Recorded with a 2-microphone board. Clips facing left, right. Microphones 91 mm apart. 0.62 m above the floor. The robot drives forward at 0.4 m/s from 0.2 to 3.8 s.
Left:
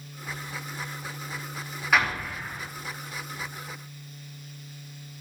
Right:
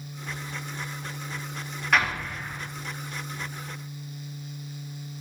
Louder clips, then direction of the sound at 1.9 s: Even; 5° left (ahead or behind).